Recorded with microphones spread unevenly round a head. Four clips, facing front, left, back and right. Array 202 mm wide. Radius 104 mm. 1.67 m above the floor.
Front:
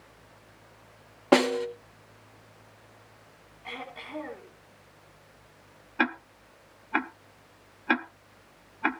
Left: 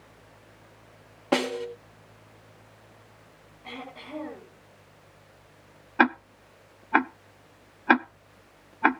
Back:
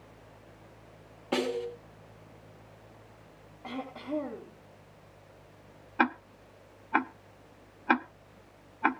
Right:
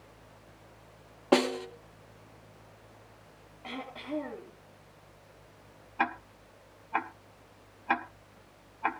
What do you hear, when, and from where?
1.3 s a snare drum: 5° right, 2 m
3.6 s throat clearing: 160° right, 7 m
6.0 s ticking: 90° left, 0.6 m